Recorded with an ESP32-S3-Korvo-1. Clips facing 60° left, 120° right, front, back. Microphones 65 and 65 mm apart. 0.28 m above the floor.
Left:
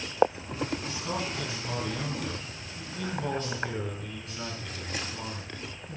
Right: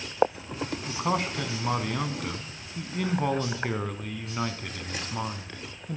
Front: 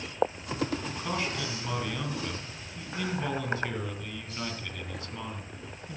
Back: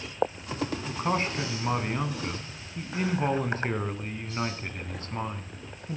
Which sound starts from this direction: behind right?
A man speaking, at 0.9 s.